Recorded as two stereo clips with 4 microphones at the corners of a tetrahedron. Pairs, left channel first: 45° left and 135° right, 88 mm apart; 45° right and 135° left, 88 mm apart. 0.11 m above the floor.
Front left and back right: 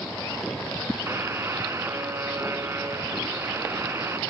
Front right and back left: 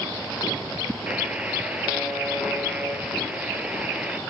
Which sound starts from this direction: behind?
A buzzer, at 1.1 s.